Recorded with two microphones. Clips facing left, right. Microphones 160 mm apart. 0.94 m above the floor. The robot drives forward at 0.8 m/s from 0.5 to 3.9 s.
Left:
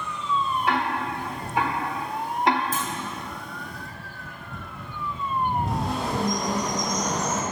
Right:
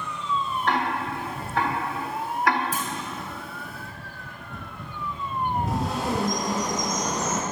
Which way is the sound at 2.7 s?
10° right (ahead or behind).